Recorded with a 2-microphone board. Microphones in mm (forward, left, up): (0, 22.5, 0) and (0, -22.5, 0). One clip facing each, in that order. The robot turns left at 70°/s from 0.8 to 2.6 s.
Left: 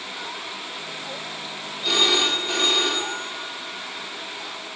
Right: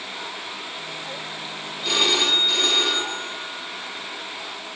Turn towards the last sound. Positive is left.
turn(degrees=130)